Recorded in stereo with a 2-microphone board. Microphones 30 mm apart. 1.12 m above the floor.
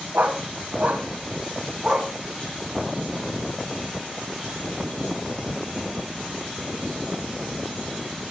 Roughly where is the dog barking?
Right.